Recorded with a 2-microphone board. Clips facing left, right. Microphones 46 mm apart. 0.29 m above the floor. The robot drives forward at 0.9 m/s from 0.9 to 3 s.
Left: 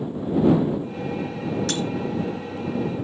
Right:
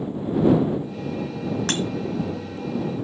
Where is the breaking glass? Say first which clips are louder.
Right 1 dB; 50° right (ahead or behind), 1.2 m; by 1.8 s 45° right (ahead or behind), 1.3 m.